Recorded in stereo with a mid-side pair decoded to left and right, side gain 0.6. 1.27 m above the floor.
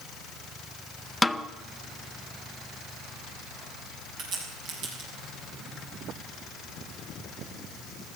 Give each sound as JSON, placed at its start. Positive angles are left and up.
{"t": 1.2, "sound": "a snare drum", "azimuth_deg": 15, "distance_m": 0.7}
{"t": 4.2, "sound": "a crack", "azimuth_deg": -60, "distance_m": 7.0}